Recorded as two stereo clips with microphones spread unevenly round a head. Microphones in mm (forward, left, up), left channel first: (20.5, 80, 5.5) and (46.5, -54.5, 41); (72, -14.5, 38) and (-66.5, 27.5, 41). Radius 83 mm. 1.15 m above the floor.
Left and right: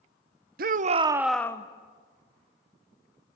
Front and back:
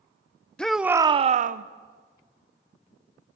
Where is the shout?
100° right, 0.9 m; by 1.6 s 150° left, 0.9 m.